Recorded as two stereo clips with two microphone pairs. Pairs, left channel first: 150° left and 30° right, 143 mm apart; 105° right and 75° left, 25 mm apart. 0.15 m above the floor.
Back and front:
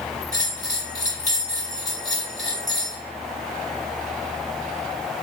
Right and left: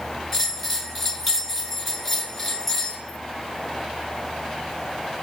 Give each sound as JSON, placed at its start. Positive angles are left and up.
{"t": 0.3, "sound": "a bell", "azimuth_deg": 160, "distance_m": 1.4}